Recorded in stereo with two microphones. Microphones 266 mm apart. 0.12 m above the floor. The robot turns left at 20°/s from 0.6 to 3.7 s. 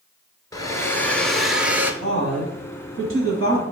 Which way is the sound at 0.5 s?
15° left (ahead or behind).